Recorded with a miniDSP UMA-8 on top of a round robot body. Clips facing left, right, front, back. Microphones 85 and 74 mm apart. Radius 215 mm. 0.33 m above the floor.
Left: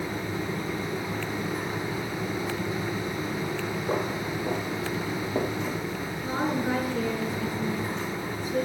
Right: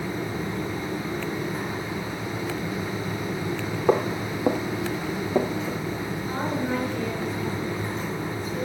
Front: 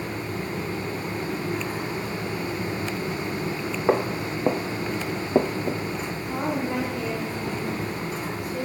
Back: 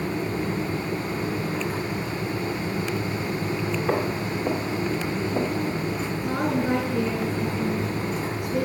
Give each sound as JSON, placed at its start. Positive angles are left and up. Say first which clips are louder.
{"t": 3.9, "sound": "footsteps", "louder": "right 8 dB, front 5 dB", "azimuth_deg": -65, "distance_m": 1.3}
{"t": 6.2, "sound": "a woman speaking", "louder": "left 2 dB, back 3 dB", "azimuth_deg": 155, "distance_m": 5.0}